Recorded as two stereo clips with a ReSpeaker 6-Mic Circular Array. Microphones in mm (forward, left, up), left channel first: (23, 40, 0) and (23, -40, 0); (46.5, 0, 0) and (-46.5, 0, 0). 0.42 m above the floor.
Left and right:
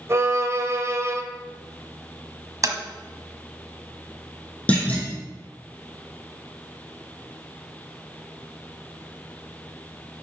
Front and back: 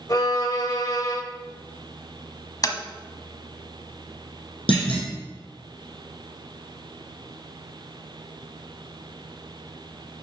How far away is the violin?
About 1.1 m.